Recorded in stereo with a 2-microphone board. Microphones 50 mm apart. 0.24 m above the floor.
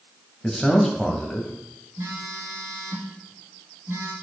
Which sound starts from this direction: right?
A phone buzzing, at 2.0 s.